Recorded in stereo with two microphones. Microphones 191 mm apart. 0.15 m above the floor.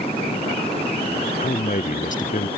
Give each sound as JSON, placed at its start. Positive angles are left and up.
{"t": 1.4, "sound": "a man speaking", "side_deg": 45}